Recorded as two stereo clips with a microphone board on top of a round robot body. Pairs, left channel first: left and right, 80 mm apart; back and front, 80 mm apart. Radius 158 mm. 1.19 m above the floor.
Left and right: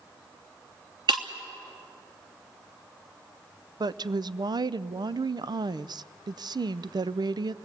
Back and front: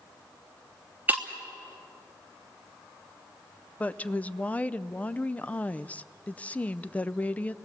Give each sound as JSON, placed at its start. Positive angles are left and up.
{"t": 1.1, "sound": "breaking glass", "azimuth_deg": -70, "distance_m": 1.0}
{"t": 3.8, "sound": "a woman speaking", "azimuth_deg": -110, "distance_m": 0.6}